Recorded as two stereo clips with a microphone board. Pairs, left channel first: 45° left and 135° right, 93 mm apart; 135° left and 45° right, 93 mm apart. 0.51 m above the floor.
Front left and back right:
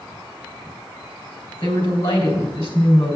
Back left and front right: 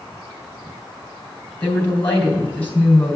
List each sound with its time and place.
1.6 s a woman speaking: 65° left, 3.5 m